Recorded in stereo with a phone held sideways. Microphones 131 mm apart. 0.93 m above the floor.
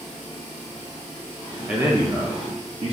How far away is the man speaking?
About 0.7 m.